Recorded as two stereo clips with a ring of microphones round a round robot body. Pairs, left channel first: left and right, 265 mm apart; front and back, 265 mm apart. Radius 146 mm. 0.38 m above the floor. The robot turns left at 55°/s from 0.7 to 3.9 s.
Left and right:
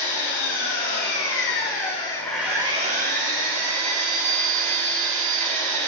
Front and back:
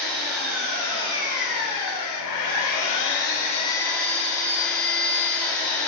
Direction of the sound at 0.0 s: 90° left.